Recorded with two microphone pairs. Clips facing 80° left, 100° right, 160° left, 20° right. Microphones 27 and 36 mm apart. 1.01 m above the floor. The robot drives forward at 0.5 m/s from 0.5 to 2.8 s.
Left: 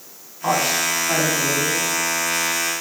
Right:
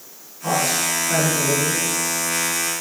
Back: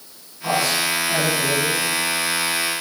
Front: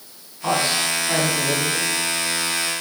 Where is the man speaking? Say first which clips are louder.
Left 1 dB, even; 55° left, 8.5 m; by 1.8 s 60° left, 8 m.